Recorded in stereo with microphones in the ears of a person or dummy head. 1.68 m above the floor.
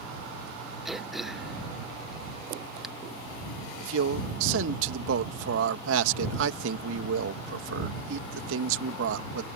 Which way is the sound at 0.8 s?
5° right (ahead or behind).